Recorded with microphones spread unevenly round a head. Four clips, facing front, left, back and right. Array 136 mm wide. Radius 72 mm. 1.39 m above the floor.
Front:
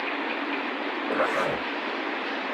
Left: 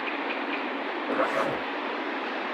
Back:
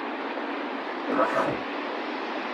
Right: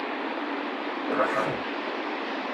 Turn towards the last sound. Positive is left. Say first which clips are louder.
# right 1 dB, back 2 dB
turn(degrees=170)